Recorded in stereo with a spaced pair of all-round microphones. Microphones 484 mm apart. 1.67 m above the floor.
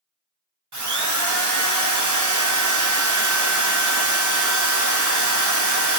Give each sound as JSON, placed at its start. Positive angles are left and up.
{"t": 0.7, "sound": "a drill", "side_deg": -40, "distance_m": 0.7}